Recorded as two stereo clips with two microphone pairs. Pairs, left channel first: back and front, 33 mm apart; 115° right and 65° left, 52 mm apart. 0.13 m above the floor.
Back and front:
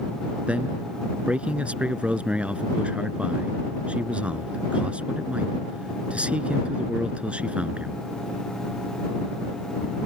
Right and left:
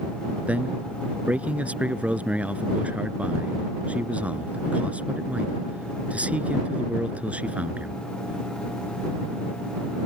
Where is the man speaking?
20° left.